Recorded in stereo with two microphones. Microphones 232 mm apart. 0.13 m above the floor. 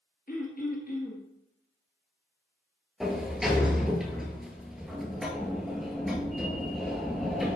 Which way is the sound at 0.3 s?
35° left (ahead or behind).